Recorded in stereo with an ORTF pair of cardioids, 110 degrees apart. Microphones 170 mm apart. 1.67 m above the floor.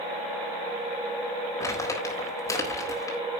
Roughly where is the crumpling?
Ahead.